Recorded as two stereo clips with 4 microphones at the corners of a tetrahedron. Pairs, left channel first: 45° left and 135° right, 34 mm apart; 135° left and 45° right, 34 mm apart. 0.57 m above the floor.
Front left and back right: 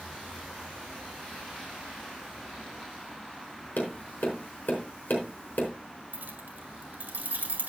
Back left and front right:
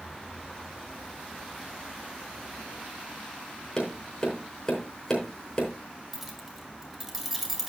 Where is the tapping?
65° left, 4 m.